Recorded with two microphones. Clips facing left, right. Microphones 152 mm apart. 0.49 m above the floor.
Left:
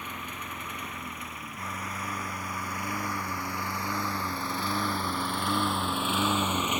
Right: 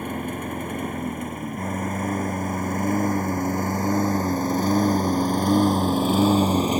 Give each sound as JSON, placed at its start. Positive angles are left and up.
{"t": 0.0, "sound": "a lawn mower", "side_deg": -50}